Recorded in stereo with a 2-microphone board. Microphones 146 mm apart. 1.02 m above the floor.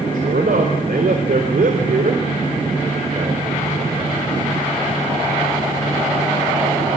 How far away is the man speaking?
About 4 m.